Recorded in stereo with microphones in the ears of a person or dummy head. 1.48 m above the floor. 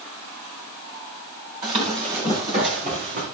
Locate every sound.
1.6 s running footsteps: 30° right (ahead or behind), 5.5 m; by 3.2 s 45° right (ahead or behind), 5 m